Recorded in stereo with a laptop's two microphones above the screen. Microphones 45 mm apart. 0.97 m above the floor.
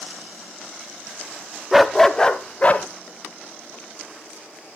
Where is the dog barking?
5° right (ahead or behind), 0.6 m; by 2.9 s 35° left (ahead or behind), 0.9 m.